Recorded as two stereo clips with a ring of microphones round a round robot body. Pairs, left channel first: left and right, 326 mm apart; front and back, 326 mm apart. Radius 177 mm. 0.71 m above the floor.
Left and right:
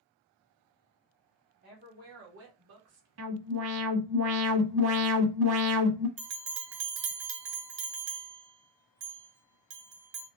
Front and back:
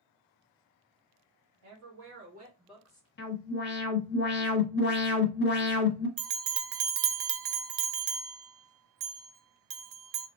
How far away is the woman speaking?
About 1.8 m.